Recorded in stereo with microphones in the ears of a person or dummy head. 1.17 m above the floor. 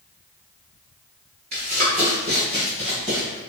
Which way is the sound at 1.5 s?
35° right (ahead or behind).